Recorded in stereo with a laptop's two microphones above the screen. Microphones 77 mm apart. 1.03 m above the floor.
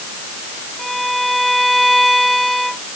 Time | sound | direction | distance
0.8 | a violin | centre (ahead or behind) | ?